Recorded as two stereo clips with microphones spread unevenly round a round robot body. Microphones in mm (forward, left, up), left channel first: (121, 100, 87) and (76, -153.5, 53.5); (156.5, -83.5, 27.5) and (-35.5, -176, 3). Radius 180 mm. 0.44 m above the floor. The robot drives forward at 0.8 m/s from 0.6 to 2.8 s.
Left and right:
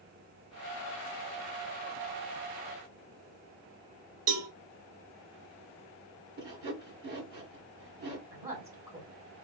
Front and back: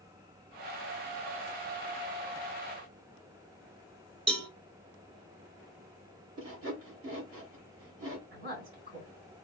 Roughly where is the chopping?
No chopping in this recording.